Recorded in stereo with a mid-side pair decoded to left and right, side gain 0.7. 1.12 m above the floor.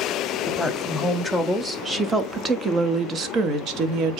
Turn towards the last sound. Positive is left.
turn(degrees=-60)